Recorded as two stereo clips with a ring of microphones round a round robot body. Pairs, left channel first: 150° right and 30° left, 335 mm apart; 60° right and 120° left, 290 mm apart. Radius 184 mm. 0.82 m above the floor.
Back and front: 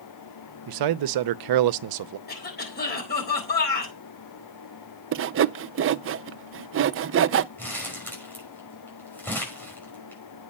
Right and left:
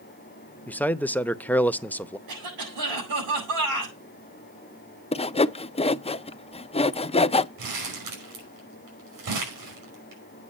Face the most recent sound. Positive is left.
turn(degrees=125)